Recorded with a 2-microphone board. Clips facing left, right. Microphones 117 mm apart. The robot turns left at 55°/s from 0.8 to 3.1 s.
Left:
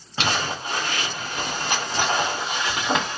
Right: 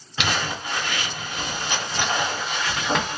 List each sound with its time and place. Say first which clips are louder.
0.2 s crumpling: left 1 dB; 35° left (ahead or behind), 1.7 m; by 3.2 s centre (ahead or behind), 1.7 m